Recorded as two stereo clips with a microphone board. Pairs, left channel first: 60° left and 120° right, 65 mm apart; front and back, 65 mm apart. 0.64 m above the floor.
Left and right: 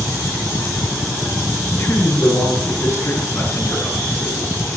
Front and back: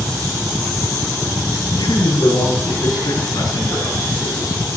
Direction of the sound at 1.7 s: 10° left.